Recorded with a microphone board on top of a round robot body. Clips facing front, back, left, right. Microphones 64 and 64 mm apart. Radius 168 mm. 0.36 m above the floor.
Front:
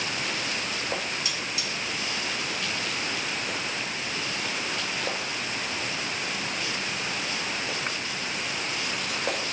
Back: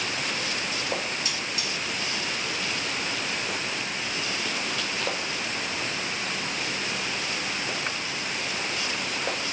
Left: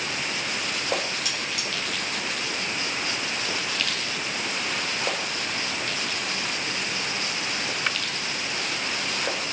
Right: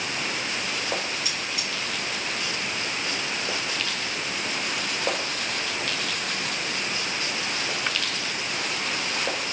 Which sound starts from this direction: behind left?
Cutlery clinking, at 1.2 s.